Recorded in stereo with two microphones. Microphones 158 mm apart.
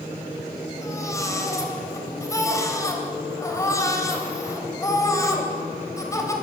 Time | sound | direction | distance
0.8 | a baby crying | 20° left (ahead or behind) | 3.5 m